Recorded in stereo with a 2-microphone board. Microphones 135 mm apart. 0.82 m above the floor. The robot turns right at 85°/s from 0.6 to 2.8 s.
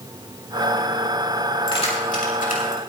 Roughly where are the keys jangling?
Left.